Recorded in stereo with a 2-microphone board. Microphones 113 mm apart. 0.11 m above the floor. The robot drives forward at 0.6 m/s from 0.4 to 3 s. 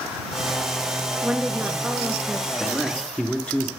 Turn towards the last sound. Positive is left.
turn(degrees=10)  # may be behind; listen again after turning